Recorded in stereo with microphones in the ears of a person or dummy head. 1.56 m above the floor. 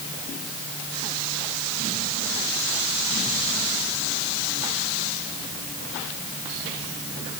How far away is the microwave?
I don't hear a microwave.